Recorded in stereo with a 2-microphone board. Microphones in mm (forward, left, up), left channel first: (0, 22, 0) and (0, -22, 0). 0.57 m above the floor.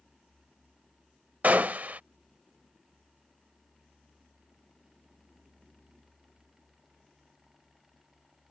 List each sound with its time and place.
1.4 s a gunshot: 40° right (ahead or behind)